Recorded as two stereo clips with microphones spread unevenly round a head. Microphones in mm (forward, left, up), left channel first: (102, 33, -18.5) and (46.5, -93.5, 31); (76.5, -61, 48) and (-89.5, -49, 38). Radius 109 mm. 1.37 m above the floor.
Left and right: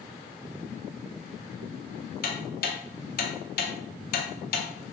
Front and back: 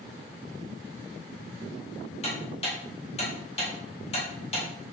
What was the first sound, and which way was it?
Ticking, 60° left.